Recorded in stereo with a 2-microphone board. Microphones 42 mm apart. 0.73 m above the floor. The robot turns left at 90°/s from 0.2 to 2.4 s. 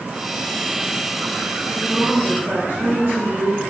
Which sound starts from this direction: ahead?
A woman speaking, at 1.7 s.